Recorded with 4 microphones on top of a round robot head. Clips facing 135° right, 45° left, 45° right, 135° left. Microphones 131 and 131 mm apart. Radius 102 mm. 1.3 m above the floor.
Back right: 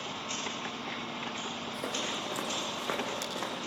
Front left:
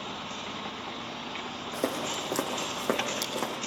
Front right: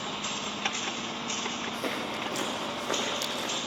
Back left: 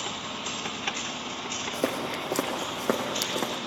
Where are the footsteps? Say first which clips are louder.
Front left 8 dB, back left 7 dB; 90° left, 3 m; by 3.6 s 110° left, 3.5 m.